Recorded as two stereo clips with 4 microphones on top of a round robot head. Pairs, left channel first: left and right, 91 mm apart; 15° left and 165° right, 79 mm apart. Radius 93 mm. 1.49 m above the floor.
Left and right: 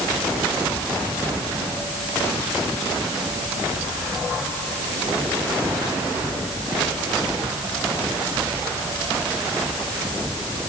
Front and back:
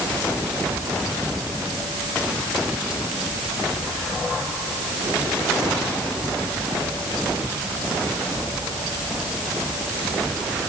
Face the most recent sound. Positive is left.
No sound to turn to.